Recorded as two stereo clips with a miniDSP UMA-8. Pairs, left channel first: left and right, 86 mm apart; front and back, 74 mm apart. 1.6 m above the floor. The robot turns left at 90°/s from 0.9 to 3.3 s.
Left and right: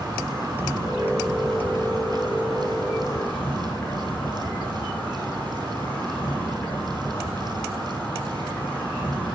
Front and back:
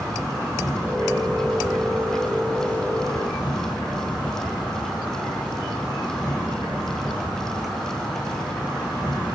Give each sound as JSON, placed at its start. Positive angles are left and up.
{"t": 0.0, "sound": "an insect", "azimuth_deg": -130, "distance_m": 6.0}